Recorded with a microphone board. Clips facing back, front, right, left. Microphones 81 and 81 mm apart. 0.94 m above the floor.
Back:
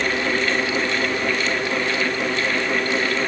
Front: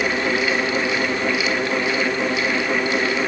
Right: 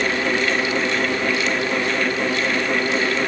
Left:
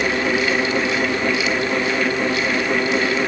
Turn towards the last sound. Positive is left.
No sound to turn to.